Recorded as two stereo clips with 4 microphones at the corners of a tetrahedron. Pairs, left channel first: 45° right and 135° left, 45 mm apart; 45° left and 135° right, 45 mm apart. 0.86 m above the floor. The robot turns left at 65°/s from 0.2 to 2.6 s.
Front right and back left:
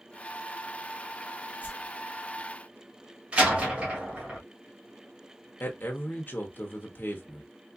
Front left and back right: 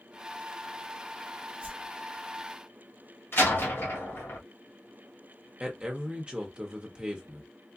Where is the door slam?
75° left, 1.7 m.